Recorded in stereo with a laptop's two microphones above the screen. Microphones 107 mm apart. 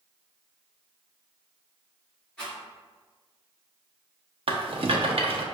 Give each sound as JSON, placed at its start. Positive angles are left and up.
{"t": 2.4, "sound": "a rattle", "side_deg": 10, "distance_m": 1.9}
{"t": 4.5, "sound": "a rattle", "side_deg": -60, "distance_m": 0.6}